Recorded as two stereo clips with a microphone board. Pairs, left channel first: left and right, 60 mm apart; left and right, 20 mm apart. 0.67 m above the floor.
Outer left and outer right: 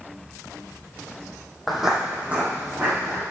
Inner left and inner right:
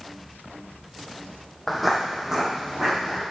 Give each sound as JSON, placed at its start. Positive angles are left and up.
{"t": 1.7, "sound": "footsteps", "side_deg": 0, "distance_m": 1.0}